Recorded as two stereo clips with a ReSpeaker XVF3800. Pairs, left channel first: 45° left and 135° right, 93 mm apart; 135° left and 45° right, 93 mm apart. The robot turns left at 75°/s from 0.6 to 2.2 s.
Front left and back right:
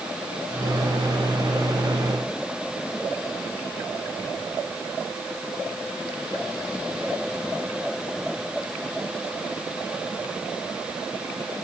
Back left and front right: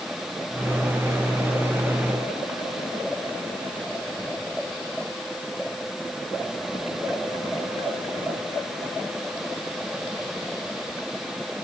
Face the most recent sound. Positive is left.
No sound to turn to.